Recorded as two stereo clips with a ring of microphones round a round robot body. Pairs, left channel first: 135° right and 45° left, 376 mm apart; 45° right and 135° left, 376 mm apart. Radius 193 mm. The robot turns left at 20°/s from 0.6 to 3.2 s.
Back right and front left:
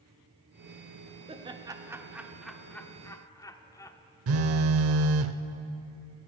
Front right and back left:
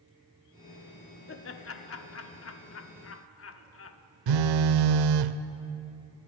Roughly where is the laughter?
Ahead.